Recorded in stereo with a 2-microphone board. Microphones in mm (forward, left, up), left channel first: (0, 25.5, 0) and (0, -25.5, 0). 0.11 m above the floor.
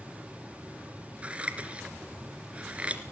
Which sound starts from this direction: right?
Scissors, at 1.2 s.